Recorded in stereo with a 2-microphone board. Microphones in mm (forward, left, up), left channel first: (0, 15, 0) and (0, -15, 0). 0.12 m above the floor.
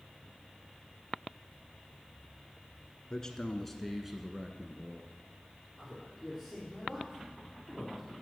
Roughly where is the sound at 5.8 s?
Centre.